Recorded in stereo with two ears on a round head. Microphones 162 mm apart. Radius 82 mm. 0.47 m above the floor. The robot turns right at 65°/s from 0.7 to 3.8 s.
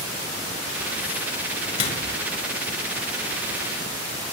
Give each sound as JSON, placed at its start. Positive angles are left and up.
{"t": 1.8, "sound": "a microwave", "side_deg": 40, "distance_m": 4.5}